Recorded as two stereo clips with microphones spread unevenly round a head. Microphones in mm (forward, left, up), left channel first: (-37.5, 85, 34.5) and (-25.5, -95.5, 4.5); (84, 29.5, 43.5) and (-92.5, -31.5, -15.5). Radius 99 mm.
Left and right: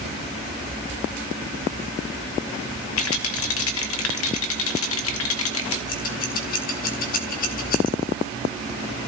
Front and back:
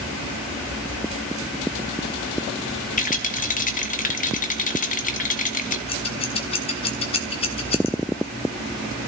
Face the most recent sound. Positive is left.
turn(degrees=65)